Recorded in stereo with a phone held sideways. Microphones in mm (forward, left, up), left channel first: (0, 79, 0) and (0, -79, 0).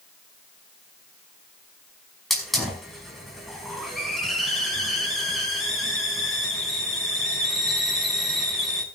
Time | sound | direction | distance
2.3 | a hiss | centre (ahead or behind) | 5 m